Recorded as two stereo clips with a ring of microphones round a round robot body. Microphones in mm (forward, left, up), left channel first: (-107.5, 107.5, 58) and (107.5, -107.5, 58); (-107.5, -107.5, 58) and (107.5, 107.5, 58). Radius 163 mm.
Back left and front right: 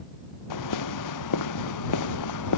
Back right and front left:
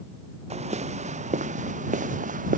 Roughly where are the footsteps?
Behind left.